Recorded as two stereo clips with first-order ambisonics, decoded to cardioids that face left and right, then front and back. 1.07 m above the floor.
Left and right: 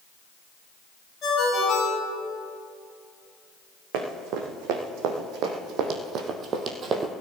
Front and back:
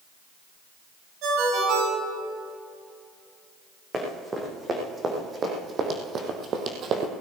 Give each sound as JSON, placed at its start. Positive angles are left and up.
{"t": 1.2, "sound": "a ringtone", "azimuth_deg": 155, "distance_m": 4.5}
{"t": 3.9, "sound": "running footsteps", "azimuth_deg": -105, "distance_m": 2.5}